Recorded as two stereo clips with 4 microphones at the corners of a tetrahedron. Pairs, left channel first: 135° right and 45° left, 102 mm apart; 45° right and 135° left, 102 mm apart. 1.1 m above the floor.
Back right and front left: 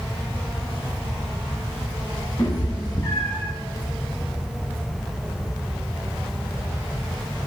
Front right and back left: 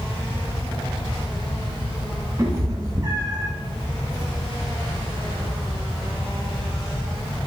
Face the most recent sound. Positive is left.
turn(degrees=160)